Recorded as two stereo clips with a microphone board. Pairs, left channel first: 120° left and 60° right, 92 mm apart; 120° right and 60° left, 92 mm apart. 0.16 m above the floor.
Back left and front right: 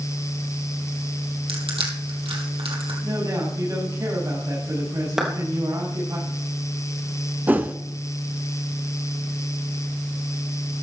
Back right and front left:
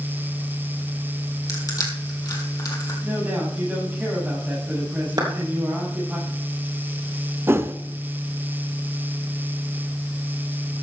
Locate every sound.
1.5 s crushing: 75° right, 2.5 m
3.0 s a man speaking: 10° right, 7.5 m
5.2 s a clap: 25° left, 3 m
7.5 s a whoosh: 5° left, 0.7 m